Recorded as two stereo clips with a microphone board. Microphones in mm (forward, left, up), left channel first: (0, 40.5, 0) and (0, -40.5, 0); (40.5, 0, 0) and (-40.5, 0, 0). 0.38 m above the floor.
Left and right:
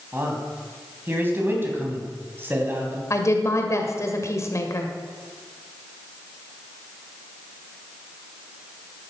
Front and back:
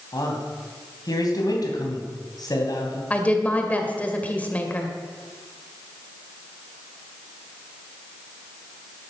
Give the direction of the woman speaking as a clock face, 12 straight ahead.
10 o'clock.